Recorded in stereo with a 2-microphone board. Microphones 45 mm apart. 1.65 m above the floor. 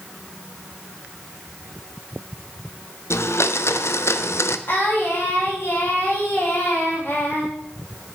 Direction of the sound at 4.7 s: 55° left (ahead or behind).